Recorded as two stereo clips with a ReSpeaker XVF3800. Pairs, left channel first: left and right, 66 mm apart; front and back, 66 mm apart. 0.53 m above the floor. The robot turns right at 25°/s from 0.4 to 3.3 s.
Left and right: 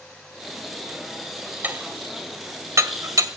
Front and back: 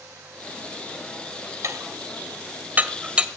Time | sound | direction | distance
1.6 | dishes clattering | 145° right | 1.7 m